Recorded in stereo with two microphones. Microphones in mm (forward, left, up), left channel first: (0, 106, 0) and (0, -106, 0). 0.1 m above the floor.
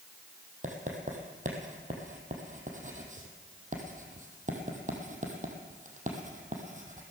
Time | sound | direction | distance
0.6 | writing | 35° right (ahead or behind) | 2.5 m